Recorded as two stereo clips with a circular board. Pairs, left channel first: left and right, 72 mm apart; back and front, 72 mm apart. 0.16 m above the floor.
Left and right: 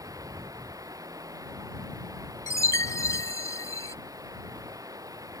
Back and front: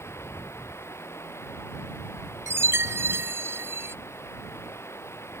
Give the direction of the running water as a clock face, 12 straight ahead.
4 o'clock.